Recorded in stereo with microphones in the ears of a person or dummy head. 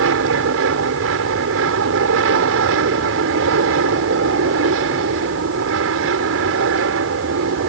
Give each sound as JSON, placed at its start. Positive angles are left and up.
{"t": 0.0, "sound": "an aircraft", "side_deg": -70}